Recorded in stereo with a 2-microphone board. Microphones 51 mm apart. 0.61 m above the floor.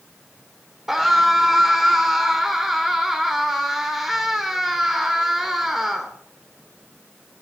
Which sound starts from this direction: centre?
A scream, at 0.9 s.